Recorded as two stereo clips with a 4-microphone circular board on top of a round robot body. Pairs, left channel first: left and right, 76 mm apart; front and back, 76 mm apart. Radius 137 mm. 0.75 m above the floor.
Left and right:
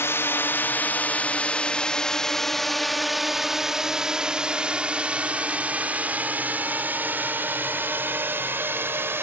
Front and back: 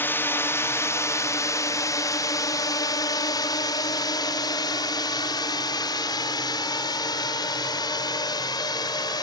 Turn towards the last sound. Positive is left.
turn(degrees=-30)